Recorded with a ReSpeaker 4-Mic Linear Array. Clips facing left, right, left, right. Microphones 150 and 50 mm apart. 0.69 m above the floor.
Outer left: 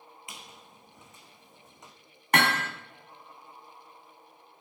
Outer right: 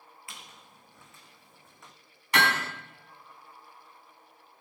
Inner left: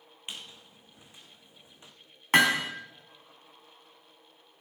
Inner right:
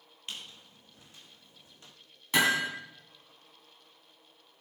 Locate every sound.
0.3 s a squeak: 20° left (ahead or behind), 2.5 m
2.3 s hammering: 55° left (ahead or behind), 2.5 m